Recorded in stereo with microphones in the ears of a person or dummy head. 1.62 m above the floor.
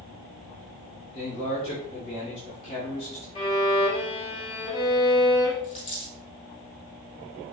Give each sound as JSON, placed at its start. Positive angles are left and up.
{"t": 1.1, "sound": "a man speaking", "side_deg": 30, "distance_m": 1.4}
{"t": 3.4, "sound": "a violin", "side_deg": 30, "distance_m": 2.5}
{"t": 5.6, "sound": "a dropped coin", "side_deg": 35, "distance_m": 2.5}